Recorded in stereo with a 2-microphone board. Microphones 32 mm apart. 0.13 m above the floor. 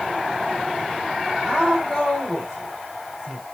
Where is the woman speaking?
20° left (ahead or behind), 2.5 m.